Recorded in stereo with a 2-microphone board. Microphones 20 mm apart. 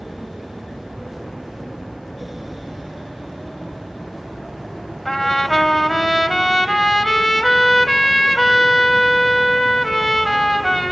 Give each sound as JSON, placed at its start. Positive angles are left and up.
{"t": 5.0, "sound": "a trumpet", "side_deg": 5, "distance_m": 2.0}